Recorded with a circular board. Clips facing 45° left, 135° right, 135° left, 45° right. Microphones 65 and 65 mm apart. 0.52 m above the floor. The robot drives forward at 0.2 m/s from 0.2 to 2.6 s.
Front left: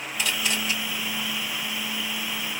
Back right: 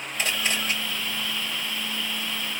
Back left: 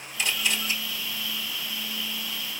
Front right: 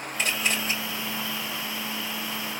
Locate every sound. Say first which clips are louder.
0.2 s a camera shutter: back right 1 dB, front right 1 dB; 90° right, 3 m